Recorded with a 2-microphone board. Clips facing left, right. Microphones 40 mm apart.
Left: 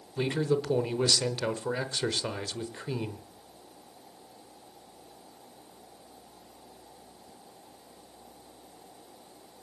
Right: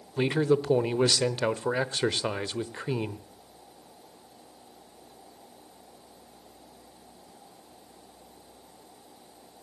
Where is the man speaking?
20° right (ahead or behind), 1.1 m.